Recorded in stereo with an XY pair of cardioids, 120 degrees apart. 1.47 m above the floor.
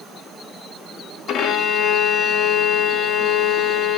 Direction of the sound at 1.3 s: 65° left.